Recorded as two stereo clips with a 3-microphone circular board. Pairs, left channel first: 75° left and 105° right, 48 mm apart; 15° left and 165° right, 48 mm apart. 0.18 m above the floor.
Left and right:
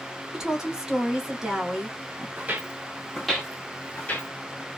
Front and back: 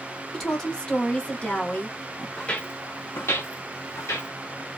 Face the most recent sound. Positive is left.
turn(degrees=20)